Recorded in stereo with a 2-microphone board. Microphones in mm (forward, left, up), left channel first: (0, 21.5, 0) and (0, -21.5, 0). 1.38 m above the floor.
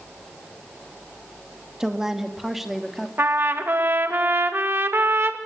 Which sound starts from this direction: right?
A trumpet, at 3.2 s.